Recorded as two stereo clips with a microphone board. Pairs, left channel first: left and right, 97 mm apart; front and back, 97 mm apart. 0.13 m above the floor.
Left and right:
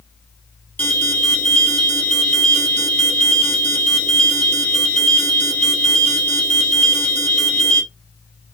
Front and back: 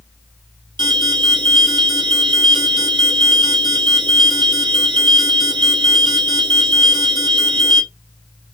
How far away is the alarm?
About 2.5 m.